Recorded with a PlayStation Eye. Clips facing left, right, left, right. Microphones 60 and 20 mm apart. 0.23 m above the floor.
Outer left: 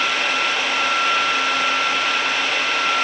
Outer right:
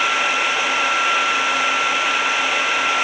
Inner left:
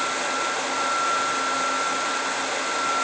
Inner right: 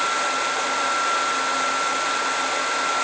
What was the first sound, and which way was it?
Only background noise.